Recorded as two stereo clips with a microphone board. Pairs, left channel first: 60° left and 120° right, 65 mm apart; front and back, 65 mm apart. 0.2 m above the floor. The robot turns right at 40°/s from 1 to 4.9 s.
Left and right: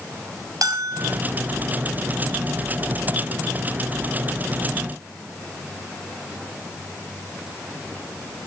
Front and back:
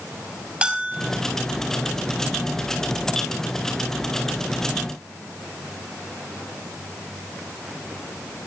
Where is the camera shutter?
No camera shutter in this recording.